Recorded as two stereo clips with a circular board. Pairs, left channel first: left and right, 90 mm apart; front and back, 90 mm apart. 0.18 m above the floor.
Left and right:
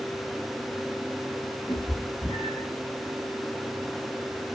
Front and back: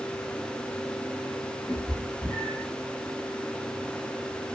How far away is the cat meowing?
About 1.0 m.